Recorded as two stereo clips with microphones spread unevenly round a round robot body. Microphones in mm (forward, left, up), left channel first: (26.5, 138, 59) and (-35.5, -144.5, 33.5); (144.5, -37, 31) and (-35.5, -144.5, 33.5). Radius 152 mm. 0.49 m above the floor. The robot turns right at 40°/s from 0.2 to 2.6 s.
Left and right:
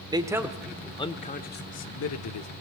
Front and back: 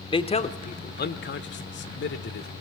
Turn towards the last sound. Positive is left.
turn(degrees=65)